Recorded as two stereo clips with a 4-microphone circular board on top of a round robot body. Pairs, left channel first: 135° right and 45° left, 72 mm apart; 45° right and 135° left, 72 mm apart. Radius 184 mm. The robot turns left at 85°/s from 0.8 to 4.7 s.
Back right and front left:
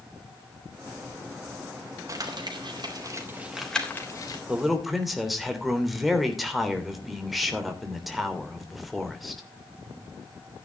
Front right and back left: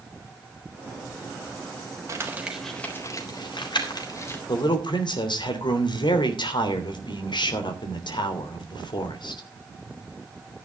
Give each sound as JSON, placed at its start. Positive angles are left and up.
{"t": 2.1, "sound": "crumpling", "azimuth_deg": 90, "distance_m": 3.5}
{"t": 4.5, "sound": "a man speaking", "azimuth_deg": -25, "distance_m": 3.0}